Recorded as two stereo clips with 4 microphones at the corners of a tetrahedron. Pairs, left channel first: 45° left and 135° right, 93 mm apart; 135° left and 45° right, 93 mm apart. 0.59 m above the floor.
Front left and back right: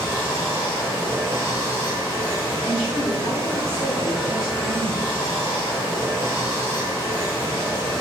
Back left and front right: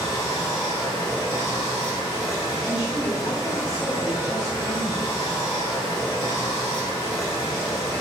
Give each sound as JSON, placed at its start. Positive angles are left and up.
{"t": 0.0, "sound": "running water", "azimuth_deg": 165, "distance_m": 1.5}
{"t": 2.6, "sound": "a woman speaking", "azimuth_deg": 140, "distance_m": 1.9}